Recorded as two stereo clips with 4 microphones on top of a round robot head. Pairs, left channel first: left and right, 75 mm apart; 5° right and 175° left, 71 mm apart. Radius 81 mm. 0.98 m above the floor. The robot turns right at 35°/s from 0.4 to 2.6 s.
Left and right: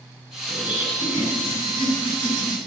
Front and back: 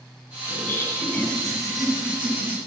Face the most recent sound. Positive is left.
turn(degrees=115)